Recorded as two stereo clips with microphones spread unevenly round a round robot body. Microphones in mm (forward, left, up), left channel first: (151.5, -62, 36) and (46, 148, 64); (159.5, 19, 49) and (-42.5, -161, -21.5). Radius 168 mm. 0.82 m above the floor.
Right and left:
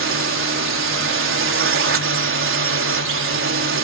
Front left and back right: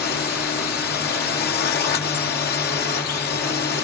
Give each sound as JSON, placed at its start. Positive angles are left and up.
{"t": 0.0, "sound": "a drone", "azimuth_deg": 105}